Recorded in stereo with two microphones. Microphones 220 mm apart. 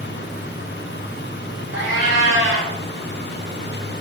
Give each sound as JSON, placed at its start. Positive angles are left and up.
{"t": 1.7, "sound": "a cat meowing", "side_deg": -55, "distance_m": 3.5}